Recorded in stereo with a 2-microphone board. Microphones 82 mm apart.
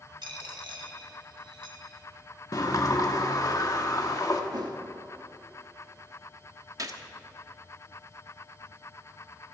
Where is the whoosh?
60° right (ahead or behind), 1.0 m.